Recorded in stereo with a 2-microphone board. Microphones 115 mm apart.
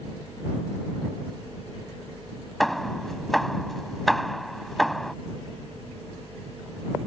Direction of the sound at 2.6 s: Centre (ahead or behind).